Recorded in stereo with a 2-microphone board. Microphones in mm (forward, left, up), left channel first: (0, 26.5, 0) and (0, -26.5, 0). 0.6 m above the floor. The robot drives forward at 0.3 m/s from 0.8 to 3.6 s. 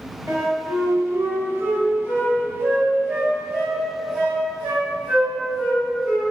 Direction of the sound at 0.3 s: 50° right (ahead or behind).